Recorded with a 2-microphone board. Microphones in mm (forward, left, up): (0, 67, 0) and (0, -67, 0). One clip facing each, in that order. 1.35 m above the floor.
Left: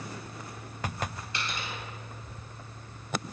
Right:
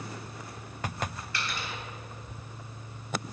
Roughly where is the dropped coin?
Left.